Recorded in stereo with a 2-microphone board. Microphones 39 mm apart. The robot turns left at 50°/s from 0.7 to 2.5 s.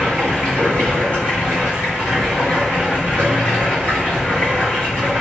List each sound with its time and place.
0.0 s running water: 140° left, 1.9 m; by 5.2 s 50° left, 1.9 m